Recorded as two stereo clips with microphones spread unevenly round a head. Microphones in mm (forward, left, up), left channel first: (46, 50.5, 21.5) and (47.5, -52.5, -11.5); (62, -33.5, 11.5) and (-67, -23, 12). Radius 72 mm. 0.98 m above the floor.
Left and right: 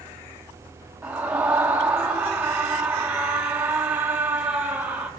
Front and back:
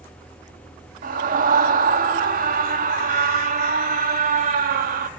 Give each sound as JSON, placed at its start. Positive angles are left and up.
{"t": 1.0, "sound": "a scream", "azimuth_deg": -170, "distance_m": 1.6}